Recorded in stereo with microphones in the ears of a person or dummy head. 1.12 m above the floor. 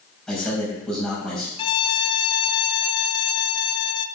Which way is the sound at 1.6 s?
25° left (ahead or behind).